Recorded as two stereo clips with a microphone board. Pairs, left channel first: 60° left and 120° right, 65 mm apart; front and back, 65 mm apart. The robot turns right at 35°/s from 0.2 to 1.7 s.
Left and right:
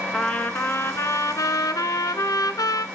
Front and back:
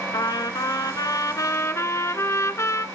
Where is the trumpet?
10° right, 0.9 m; by 2.9 s 40° left, 0.9 m.